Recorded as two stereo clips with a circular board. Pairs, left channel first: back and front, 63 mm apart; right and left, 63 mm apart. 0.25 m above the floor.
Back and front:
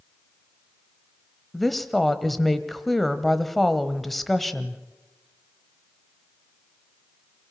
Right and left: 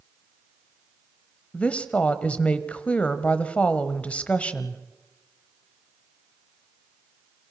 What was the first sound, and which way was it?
A woman speaking, 95° right.